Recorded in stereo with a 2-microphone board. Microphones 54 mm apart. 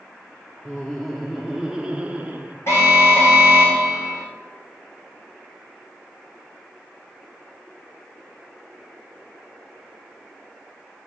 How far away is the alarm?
About 4 m.